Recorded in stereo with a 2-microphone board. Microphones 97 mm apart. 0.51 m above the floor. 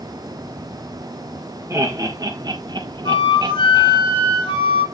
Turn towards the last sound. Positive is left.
turn(degrees=55)  # may be behind; listen again after turning